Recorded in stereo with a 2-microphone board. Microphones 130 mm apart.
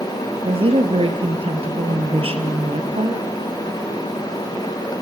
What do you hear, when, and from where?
0.4 s a woman speaking: 45° right (ahead or behind), 2.5 m